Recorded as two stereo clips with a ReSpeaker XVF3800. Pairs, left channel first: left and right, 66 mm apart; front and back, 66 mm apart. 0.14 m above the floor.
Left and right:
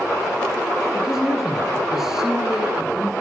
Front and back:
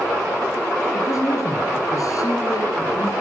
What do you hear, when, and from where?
0.9 s a man speaking: 5° right, 2.5 m